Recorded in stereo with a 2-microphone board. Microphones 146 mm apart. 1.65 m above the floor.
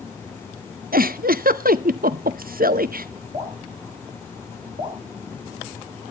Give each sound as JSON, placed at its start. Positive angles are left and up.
{"t": 0.9, "sound": "a giggle", "side_deg": -80, "distance_m": 0.6}
{"t": 3.3, "sound": "dripping", "side_deg": -55, "distance_m": 5.0}